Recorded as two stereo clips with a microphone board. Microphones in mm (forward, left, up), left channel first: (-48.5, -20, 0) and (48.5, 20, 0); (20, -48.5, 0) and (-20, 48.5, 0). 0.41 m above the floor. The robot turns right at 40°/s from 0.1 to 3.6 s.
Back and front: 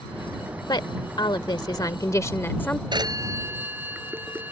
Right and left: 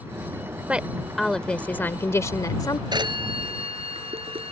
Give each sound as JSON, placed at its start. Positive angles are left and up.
{"t": 0.7, "sound": "a woman speaking", "azimuth_deg": -175}
{"t": 2.9, "sound": "a phone ringing", "azimuth_deg": 65}